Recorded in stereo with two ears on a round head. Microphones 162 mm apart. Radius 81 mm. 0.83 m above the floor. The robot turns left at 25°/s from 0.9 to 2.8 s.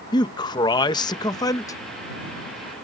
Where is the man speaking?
25° left (ahead or behind); by 1.8 s 15° left (ahead or behind).